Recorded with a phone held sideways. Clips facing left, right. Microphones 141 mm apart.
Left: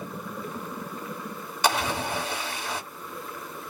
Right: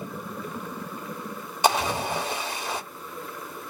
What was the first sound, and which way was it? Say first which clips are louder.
A splash: right 3 dB; 20° right (ahead or behind).